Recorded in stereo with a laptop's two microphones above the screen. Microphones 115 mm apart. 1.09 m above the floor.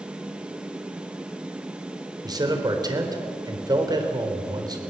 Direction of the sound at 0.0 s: 10° right (ahead or behind).